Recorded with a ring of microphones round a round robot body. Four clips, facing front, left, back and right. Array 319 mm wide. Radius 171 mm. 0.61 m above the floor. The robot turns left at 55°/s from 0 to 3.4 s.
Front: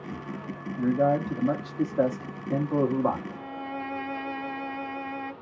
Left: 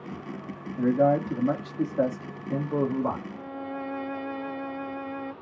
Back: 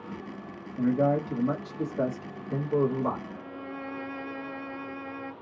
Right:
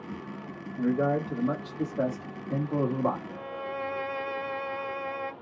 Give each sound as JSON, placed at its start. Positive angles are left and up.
{"t": 0.8, "sound": "a man speaking", "azimuth_deg": 100, "distance_m": 1.4}
{"t": 3.3, "sound": "a violin", "azimuth_deg": -60, "distance_m": 0.5}